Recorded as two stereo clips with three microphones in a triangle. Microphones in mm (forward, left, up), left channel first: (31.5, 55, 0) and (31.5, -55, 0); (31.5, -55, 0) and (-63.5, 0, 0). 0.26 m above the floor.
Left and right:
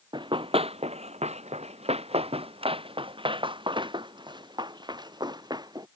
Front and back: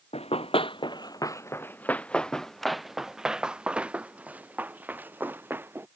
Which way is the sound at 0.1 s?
45° right.